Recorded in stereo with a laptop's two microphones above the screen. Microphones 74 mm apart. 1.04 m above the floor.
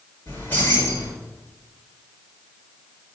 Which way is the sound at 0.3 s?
25° left (ahead or behind).